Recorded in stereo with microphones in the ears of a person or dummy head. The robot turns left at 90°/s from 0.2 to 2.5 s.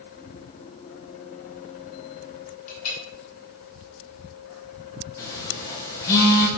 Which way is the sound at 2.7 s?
45° left (ahead or behind).